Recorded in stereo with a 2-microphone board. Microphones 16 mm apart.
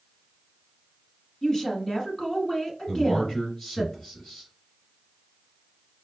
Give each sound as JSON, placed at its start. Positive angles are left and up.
{"t": 1.4, "sound": "a woman speaking", "side_deg": 30, "distance_m": 1.4}
{"t": 2.9, "sound": "a man speaking", "side_deg": 35, "distance_m": 2.0}